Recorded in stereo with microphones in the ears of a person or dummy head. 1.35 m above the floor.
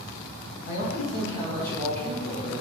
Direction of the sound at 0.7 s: 50° left (ahead or behind).